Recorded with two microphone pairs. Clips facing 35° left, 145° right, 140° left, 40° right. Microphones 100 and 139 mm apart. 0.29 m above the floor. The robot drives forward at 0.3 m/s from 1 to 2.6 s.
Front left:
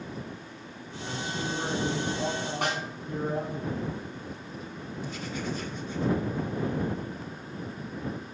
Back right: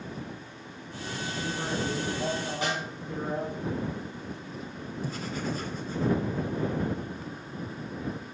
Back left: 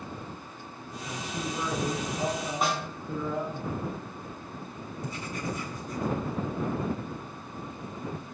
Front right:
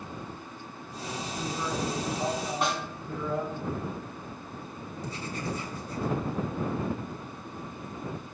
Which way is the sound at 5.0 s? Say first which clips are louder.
Back right 2 dB, even; 95° right.